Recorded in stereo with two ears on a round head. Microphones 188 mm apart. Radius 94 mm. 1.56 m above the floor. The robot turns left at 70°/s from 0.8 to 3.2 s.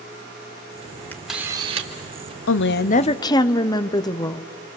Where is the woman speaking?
70° left, 0.7 m; by 4.4 s 20° left, 0.7 m.